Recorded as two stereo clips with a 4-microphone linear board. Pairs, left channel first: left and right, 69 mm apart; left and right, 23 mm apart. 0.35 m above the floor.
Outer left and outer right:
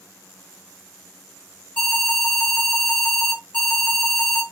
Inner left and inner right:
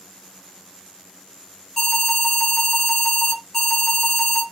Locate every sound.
1.8 s an alarm: 15° left (ahead or behind), 2.5 m